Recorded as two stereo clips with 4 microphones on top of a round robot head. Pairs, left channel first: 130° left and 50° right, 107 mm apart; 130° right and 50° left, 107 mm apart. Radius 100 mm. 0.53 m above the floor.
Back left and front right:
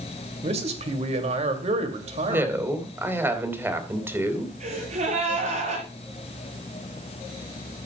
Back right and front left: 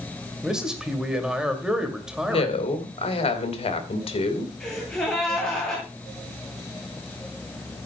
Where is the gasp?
45° right, 8.5 m.